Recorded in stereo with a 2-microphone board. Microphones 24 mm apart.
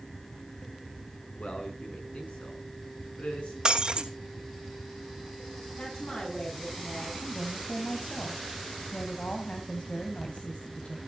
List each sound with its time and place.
1.4 s a man speaking: 65° left (ahead or behind), 6 m
3.6 s breaking glass: 30° right (ahead or behind), 1.6 m
5.8 s a woman speaking: 40° left (ahead or behind), 6 m
7.2 s a woman speaking: 55° left (ahead or behind), 2.5 m